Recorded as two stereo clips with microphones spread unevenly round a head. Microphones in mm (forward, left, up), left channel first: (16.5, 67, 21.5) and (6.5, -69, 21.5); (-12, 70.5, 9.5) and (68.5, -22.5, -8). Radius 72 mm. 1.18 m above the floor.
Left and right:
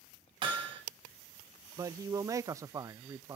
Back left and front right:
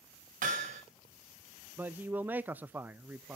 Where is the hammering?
40° right, 5.5 m.